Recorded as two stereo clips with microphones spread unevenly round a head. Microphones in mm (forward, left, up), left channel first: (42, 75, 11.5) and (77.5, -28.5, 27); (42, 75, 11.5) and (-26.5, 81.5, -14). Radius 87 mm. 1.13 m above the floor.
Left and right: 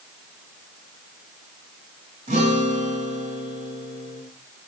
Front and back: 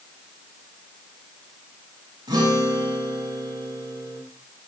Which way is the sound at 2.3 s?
125° right.